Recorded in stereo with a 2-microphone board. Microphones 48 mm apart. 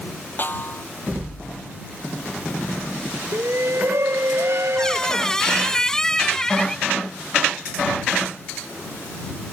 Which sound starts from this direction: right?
A shout, at 3.3 s.